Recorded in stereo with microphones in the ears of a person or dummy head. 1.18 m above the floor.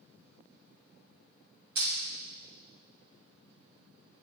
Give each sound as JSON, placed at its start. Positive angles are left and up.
{"t": 1.8, "sound": "crushing", "side_deg": -70, "distance_m": 2.5}